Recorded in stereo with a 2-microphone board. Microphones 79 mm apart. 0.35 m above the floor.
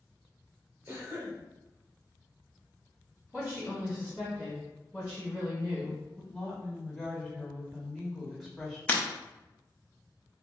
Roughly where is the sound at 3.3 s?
Centre.